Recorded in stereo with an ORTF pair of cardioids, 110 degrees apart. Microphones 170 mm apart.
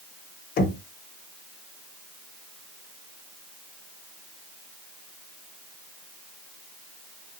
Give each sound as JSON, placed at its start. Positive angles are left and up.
{"t": 0.6, "sound": "knocking", "azimuth_deg": 55, "distance_m": 2.5}